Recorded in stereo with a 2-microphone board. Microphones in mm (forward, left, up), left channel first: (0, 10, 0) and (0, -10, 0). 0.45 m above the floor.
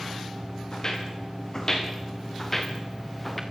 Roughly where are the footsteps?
Left.